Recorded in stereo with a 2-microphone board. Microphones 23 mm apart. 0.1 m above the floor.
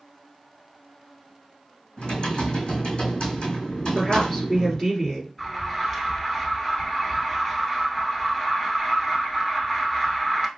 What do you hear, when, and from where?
2.0 s typing on a keyboard: 55° left (ahead or behind), 2 m
4.0 s a woman speaking: 20° left (ahead or behind), 1.9 m
5.4 s an alarm: 10° left (ahead or behind), 1.0 m